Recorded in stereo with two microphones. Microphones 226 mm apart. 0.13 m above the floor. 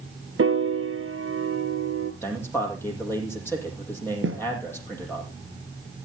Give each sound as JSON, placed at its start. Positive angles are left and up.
{"t": 0.4, "sound": "a piano", "side_deg": -75, "distance_m": 0.9}
{"t": 2.2, "sound": "a man speaking", "side_deg": 10, "distance_m": 4.5}
{"t": 4.2, "sound": "a snare drum", "side_deg": -65, "distance_m": 2.5}